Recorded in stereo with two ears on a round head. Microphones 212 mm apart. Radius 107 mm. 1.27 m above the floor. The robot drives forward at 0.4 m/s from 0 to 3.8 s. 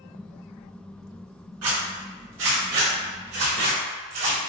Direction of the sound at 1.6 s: 65° right (ahead or behind).